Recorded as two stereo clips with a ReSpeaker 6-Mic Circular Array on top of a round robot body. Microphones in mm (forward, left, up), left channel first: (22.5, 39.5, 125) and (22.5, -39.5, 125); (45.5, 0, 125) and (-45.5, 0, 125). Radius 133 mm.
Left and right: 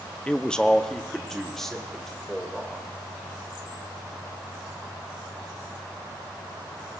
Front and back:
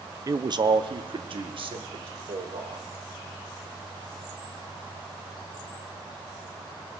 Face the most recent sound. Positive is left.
turn(degrees=175)